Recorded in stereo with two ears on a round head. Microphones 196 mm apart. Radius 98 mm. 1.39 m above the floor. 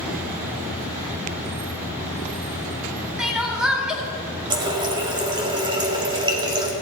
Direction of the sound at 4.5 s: 20° right (ahead or behind).